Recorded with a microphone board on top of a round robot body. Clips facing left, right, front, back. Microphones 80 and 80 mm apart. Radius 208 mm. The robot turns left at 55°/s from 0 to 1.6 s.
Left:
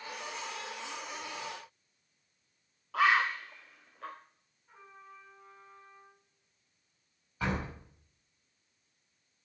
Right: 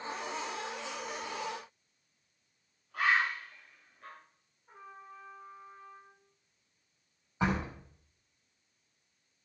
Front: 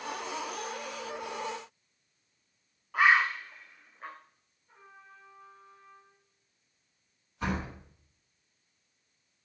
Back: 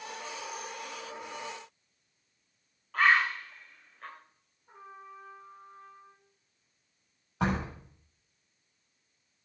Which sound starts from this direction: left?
A bird, at 2.9 s.